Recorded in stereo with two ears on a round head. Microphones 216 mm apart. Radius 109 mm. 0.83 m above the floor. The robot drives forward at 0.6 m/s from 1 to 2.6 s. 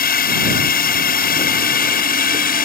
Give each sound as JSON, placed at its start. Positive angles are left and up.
{"t": 0.0, "sound": "a drone", "side_deg": 40}